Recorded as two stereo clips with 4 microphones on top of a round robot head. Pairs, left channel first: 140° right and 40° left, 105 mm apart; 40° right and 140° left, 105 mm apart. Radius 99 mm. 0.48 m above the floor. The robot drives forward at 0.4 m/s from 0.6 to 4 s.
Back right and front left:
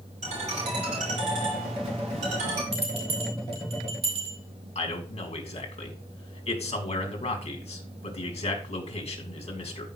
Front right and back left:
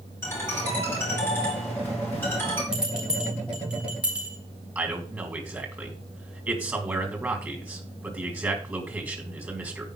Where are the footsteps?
No footsteps in this recording.